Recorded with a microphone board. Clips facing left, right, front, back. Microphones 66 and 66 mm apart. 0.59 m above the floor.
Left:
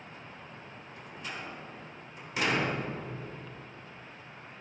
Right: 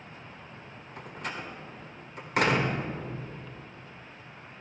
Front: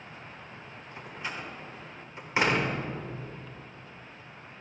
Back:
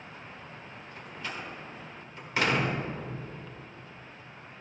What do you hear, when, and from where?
1.0 s a door slam: 70° right, 1.4 m